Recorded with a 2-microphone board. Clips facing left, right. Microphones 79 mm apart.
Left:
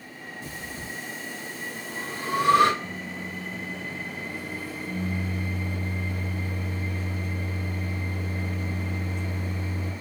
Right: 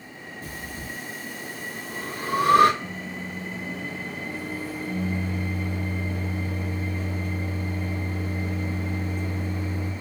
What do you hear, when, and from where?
0.4 s breathing: 45° right (ahead or behind), 0.7 m
2.8 s a microwave: 45° right (ahead or behind), 0.6 m